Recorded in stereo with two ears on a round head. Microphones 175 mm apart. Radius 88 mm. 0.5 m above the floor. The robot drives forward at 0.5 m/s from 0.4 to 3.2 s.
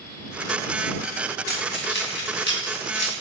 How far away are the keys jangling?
About 3 m.